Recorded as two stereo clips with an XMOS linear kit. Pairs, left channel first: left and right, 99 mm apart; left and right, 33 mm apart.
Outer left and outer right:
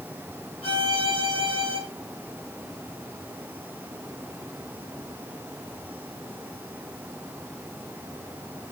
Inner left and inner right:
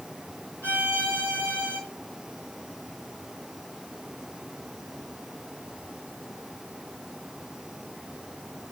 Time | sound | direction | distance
0.6 | a violin | 85° left | 7 m